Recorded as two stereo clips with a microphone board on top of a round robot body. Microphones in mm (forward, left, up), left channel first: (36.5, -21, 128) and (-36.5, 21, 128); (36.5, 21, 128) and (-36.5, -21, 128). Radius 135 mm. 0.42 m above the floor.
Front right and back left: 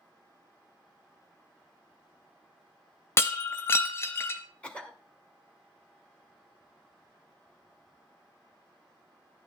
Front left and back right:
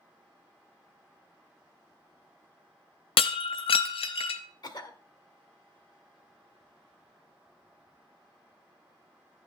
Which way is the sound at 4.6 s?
45° left.